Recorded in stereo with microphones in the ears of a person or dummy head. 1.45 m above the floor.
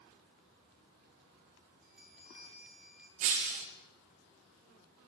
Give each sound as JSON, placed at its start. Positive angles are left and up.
{"t": 1.8, "sound": "a bell", "side_deg": -10, "distance_m": 4.0}
{"t": 3.2, "sound": "breaking glass", "side_deg": -35, "distance_m": 1.8}